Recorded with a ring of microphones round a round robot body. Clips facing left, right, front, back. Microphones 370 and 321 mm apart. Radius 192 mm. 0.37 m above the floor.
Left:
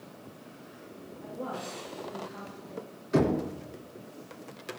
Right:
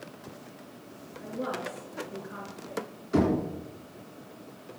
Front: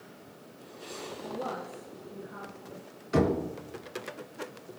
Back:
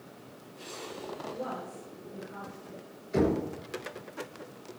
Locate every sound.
1.2 s a woman speaking: 80° right, 5 m; by 2.8 s 85° right, 4.5 m
3.1 s knocking: straight ahead, 3.5 m